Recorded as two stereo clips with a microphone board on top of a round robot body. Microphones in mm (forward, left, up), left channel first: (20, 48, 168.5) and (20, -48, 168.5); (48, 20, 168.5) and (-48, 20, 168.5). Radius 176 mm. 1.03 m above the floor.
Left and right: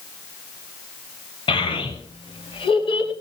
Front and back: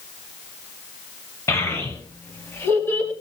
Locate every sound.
1.5 s a child speaking: 60° left, 5.5 m